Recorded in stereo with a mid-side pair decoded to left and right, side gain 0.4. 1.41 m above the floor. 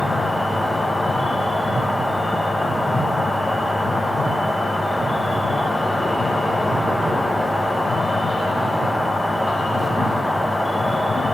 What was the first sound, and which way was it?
An insect, straight ahead.